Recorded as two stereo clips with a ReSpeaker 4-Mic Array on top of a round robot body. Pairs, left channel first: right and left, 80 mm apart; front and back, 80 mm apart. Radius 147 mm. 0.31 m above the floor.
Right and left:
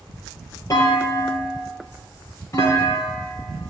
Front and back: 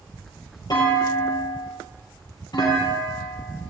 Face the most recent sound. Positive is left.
turn(degrees=-40)